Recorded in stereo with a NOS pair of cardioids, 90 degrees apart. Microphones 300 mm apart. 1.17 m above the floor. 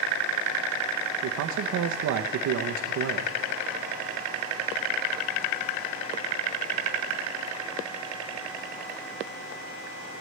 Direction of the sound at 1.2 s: 65° right.